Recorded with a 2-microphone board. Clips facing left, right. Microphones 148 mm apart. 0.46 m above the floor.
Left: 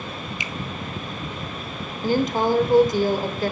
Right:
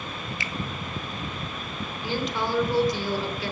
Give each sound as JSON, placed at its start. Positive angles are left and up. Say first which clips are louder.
{"t": 0.4, "sound": "a finger snap", "louder": "left 2 dB", "side_deg": 20, "distance_m": 0.6}
{"t": 2.0, "sound": "a woman speaking", "louder": "left 8 dB", "side_deg": 50, "distance_m": 1.1}